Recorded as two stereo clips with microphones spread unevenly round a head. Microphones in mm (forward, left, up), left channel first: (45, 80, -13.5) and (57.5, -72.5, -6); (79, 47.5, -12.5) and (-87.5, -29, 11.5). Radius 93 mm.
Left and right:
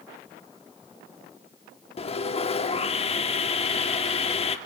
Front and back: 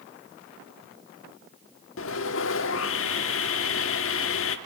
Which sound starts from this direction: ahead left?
Sawing, at 2.0 s.